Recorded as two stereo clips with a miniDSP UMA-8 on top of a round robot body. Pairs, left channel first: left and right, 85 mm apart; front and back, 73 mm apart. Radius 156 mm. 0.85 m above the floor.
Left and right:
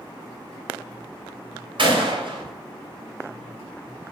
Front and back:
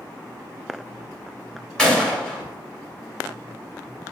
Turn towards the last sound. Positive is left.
turn(degrees=-80)